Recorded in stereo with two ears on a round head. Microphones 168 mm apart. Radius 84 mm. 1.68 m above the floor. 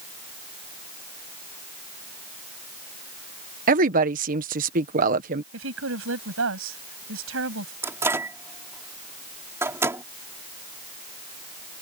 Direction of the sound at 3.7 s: 45° right (ahead or behind).